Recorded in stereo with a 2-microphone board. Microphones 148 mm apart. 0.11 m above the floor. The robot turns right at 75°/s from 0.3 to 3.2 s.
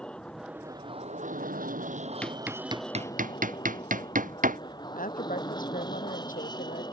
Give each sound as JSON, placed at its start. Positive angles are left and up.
{"t": 0.0, "sound": "an aircraft", "azimuth_deg": 175}
{"t": 2.2, "sound": "hammering", "side_deg": 10}
{"t": 4.9, "sound": "a woman speaking", "side_deg": 65}